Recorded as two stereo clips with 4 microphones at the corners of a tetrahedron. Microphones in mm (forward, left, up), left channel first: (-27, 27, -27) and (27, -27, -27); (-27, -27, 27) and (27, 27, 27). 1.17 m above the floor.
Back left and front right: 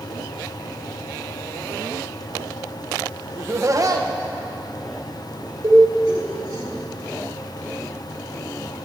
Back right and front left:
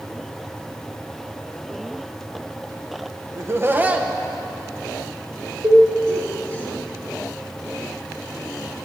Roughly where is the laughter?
Ahead.